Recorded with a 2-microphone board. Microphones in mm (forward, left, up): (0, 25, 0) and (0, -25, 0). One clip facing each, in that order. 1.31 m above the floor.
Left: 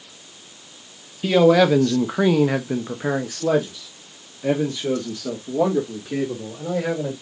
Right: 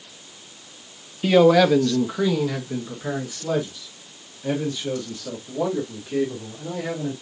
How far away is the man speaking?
About 0.9 m.